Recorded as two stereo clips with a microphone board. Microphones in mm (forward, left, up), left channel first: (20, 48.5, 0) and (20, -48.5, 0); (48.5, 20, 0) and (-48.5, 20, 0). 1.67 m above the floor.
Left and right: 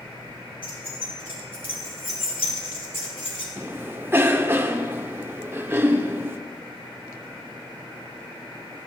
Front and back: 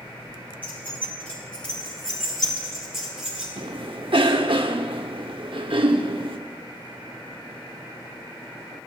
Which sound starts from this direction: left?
Keys jangling, at 0.6 s.